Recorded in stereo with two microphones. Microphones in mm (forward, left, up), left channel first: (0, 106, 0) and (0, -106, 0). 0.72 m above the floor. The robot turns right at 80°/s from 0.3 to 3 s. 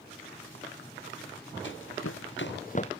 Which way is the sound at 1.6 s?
60° left (ahead or behind).